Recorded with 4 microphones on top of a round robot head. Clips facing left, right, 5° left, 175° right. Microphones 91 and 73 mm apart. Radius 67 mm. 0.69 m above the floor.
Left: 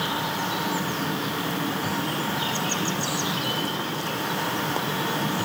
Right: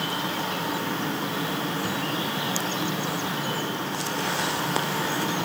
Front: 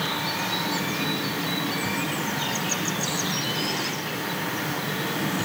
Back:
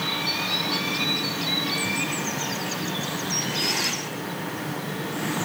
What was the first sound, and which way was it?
Only background noise.